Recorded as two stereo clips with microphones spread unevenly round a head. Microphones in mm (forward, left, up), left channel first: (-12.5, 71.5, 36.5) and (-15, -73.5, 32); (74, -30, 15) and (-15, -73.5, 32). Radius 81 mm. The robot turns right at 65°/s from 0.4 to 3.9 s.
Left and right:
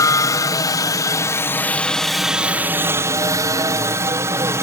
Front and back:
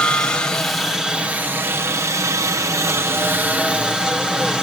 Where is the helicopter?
70° left; by 4.6 s 65° right.